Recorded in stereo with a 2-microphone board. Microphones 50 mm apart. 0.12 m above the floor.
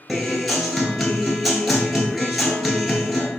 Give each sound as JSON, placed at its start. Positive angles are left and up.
{"t": 0.1, "sound": "a guitar", "side_deg": 0, "distance_m": 0.8}